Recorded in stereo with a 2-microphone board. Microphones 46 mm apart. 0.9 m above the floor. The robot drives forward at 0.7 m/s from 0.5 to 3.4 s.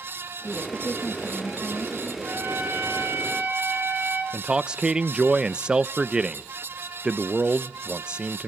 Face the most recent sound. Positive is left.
turn(degrees=-20)  # may be behind; listen again after turning